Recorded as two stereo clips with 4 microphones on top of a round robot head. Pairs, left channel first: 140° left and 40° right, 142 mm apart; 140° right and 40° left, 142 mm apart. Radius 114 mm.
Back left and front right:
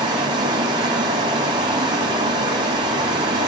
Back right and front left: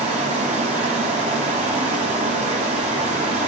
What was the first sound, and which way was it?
Running water, 10° left.